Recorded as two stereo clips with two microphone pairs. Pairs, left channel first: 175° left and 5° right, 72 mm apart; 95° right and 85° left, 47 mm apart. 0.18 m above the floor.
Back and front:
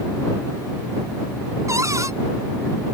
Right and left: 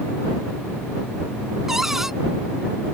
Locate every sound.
1.7 s a cupboard door: 5° left